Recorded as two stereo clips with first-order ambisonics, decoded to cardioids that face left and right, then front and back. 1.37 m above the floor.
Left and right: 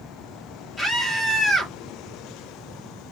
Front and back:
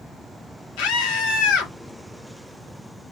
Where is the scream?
5° left, 2.5 m.